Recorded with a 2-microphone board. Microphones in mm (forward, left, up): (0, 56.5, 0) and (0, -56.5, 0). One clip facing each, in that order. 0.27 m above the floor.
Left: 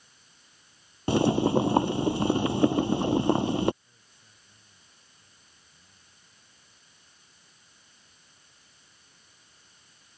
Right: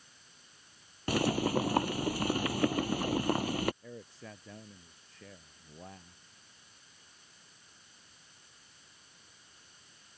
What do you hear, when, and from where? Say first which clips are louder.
1.1 s boiling: left 7 dB; 25° left (ahead or behind)
3.8 s a man speaking: right 18 dB; 85° right